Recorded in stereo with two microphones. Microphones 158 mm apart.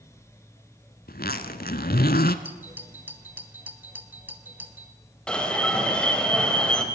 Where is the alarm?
5° left (ahead or behind), 2.5 m.